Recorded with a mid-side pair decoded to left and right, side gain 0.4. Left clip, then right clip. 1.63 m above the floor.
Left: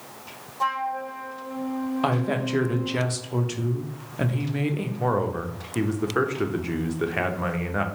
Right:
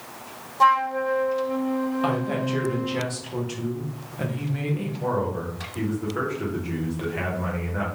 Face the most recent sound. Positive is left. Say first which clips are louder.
# left 2 dB
turn(degrees=65)